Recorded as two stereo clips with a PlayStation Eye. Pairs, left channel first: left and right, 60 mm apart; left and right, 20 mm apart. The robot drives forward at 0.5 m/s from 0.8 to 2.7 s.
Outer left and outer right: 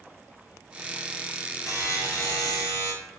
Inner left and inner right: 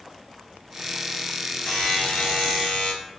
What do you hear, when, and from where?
1.7 s a buzzer: 55° left (ahead or behind), 0.6 m; by 2.9 s 70° left (ahead or behind), 0.5 m